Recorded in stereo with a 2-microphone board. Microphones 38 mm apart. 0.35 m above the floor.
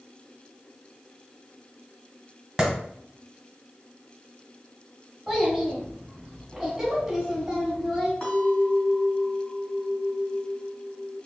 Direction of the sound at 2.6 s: 15° right (ahead or behind).